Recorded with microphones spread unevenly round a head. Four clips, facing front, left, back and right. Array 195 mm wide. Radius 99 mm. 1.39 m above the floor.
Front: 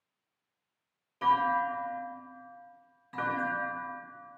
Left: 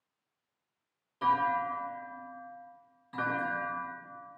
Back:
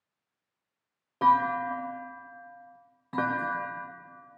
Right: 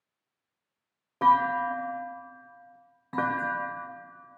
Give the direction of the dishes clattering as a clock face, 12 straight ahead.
No dishes clattering in this recording.